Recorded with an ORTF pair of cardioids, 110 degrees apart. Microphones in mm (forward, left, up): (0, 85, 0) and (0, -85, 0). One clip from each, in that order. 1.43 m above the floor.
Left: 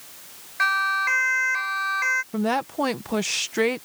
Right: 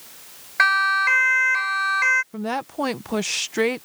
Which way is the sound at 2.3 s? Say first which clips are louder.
Left 2 dB; 10° right.